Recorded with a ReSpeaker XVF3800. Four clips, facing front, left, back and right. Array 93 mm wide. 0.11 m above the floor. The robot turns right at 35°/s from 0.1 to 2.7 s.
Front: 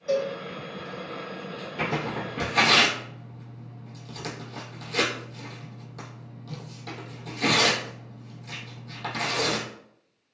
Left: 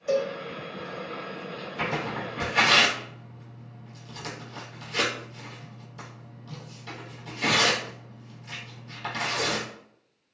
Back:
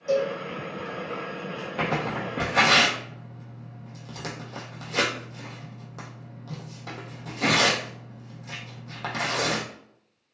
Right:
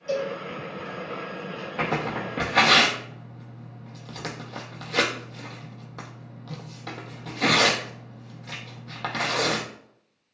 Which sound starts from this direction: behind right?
Tearing paper, at 1.8 s.